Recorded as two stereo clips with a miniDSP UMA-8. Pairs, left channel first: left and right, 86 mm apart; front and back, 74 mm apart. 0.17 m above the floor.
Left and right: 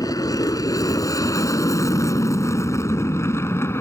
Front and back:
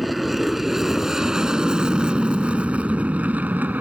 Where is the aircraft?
90° left; by 3.8 s 130° left.